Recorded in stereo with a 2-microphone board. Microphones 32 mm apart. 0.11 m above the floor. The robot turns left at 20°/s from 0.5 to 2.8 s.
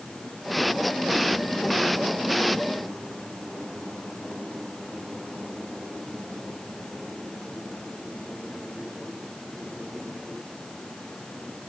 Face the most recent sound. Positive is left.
No sound to turn to.